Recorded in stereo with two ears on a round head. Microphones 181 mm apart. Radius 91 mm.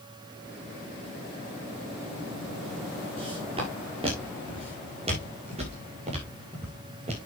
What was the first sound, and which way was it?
Footsteps, 30° right (ahead or behind).